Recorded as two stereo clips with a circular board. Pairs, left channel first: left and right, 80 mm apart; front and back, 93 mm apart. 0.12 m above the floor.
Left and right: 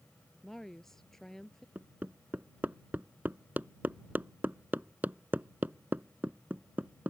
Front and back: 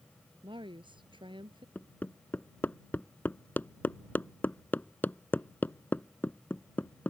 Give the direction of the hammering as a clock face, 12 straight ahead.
2 o'clock.